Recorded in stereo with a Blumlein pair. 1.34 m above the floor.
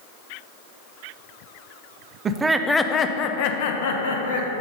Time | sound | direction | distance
2.2 | laughter | 25° right | 0.6 m